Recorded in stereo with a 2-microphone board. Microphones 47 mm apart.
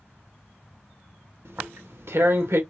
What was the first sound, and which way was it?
Tearing paper, 65° right (ahead or behind).